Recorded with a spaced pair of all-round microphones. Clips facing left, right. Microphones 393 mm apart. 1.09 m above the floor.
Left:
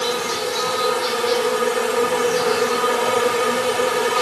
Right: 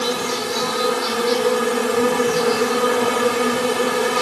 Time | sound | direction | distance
0.0 | an insect | 55° right (ahead or behind) | 3 m